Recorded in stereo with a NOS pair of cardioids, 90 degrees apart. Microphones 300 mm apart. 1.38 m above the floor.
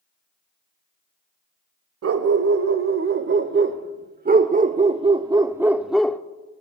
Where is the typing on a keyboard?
I don't hear typing on a keyboard.